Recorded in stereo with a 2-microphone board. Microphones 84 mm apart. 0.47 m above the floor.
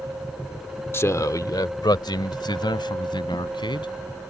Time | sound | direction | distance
0.9 | a man speaking | 30° left (ahead or behind) | ?